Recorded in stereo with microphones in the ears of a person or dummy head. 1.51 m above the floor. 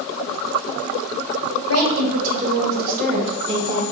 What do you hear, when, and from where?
1.7 s a woman speaking: 75° right (ahead or behind), 1.1 m; by 3.8 s 10° right (ahead or behind), 1.0 m